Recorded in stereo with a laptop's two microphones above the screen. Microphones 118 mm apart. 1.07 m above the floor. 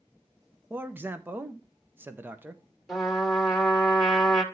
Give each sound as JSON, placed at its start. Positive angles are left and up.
{"t": 0.7, "sound": "a man speaking", "side_deg": -15, "distance_m": 0.7}
{"t": 2.9, "sound": "a trumpet", "side_deg": 0, "distance_m": 2.0}